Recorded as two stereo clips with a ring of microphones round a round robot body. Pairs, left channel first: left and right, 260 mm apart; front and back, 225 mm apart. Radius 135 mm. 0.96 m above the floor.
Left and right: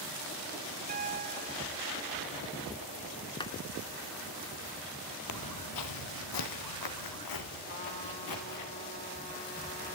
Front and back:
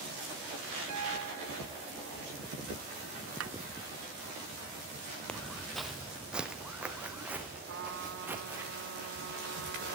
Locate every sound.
0.9 s a piano: 150° right, 2 m
3.4 s a clap: 165° left, 2.5 m
5.3 s footsteps: 85° left, 1.7 m; by 8.7 s 100° left, 6 m
7.7 s a trumpet: 150° left, 4 m